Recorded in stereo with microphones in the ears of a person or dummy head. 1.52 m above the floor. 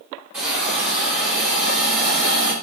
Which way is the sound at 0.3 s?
15° right (ahead or behind).